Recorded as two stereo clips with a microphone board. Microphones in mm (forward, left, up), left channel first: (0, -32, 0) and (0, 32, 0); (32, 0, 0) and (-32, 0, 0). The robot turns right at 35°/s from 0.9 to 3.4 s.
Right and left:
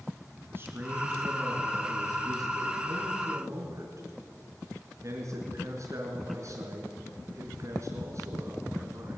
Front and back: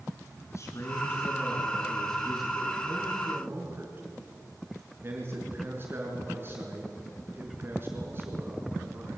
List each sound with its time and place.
0.5 s a man speaking: 40° left, 4.5 m; by 9.2 s 125° left, 4.5 m